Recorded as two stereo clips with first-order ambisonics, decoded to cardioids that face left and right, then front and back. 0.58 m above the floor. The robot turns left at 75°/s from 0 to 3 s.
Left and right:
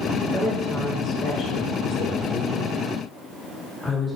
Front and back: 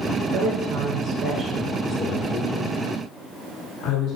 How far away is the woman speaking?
About 1.4 m.